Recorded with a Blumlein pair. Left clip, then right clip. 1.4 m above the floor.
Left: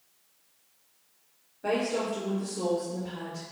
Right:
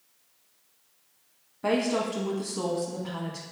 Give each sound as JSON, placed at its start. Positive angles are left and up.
{"t": 1.6, "sound": "a woman speaking", "azimuth_deg": -65, "distance_m": 1.2}